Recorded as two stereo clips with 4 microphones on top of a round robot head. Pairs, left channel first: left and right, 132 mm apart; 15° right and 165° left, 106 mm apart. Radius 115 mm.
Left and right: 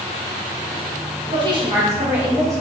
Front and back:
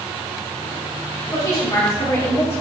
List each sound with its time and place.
1.3 s a woman speaking: 55° right, 1.9 m; by 2.6 s 15° left, 1.3 m